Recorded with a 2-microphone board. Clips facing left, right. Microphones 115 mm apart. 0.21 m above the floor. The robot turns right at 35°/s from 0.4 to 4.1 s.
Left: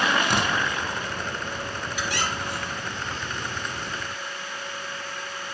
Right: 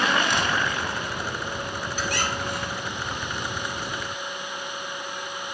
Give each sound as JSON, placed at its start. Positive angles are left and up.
{"t": 0.2, "sound": "tearing paper", "side_deg": 70, "distance_m": 0.9}
{"t": 2.0, "sound": "a squeak", "azimuth_deg": -125, "distance_m": 1.8}